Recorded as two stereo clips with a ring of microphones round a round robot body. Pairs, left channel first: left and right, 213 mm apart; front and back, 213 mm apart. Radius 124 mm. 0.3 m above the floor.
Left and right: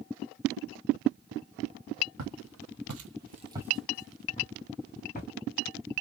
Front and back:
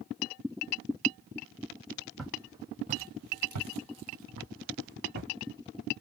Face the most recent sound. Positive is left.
turn(degrees=145)